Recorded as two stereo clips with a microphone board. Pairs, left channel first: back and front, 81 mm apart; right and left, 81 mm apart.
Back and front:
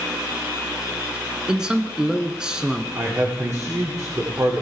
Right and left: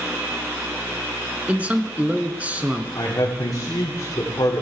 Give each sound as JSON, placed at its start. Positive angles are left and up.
{"t": 1.5, "sound": "a man speaking", "azimuth_deg": 60, "distance_m": 1.2}
{"t": 3.0, "sound": "a man speaking", "azimuth_deg": -45, "distance_m": 8.5}